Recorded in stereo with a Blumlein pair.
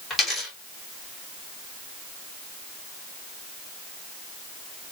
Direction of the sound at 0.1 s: 15° left.